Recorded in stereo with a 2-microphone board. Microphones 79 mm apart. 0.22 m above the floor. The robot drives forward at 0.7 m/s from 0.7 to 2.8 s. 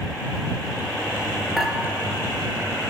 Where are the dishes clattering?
5° right (ahead or behind), 3 m.